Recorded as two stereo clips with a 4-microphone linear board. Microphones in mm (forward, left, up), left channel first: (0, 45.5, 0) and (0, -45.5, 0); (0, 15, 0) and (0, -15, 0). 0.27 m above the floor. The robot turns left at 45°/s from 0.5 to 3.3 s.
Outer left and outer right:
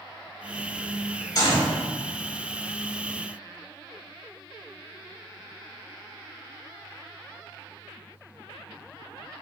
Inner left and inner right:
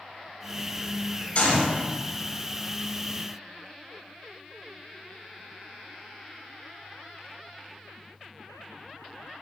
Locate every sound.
1.4 s a gunshot: 45° left (ahead or behind), 4 m; by 1.8 s 60° left (ahead or behind), 4 m